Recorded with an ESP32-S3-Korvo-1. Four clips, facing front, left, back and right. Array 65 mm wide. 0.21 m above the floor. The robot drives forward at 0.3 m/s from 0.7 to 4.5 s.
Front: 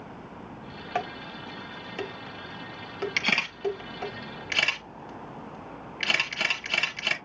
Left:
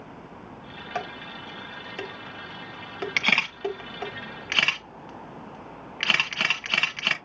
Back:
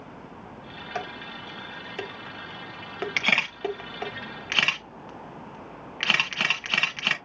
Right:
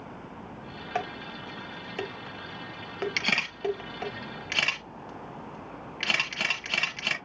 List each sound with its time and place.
0.9 s dishes clattering: 10° right, 0.8 m; by 4.1 s 175° right, 1.0 m
3.2 s a camera shutter: 120° left, 1.3 m; by 7.2 s 140° left, 1.4 m